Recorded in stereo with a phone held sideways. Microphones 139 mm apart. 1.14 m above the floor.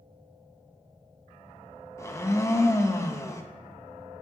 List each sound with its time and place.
2.0 s a blender: 20° left (ahead or behind), 0.7 m